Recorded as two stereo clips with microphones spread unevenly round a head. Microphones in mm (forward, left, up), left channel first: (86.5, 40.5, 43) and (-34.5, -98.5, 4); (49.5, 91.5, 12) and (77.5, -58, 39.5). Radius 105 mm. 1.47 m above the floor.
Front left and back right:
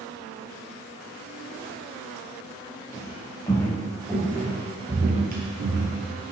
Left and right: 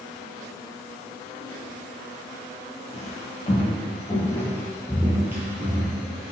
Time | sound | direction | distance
2.9 | footsteps | 70° left | 1.8 m